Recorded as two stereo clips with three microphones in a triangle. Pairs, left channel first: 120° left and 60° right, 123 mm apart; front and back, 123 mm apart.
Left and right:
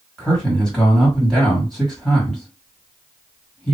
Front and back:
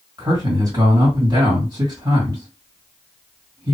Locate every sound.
0.2 s a man speaking: 155° right, 2.0 m